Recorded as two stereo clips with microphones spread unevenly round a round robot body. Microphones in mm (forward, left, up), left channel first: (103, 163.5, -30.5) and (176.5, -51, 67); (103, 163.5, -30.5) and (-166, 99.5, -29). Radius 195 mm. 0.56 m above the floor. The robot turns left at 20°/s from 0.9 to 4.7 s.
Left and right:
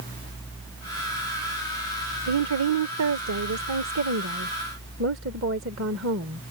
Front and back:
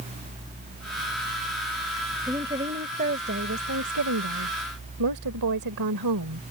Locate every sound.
2.3 s a woman speaking: 85° right; by 6.4 s 135° right